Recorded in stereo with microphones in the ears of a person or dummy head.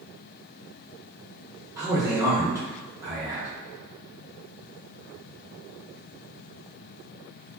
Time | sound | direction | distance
1.8 | a man speaking | 15° right (ahead or behind) | 1.1 m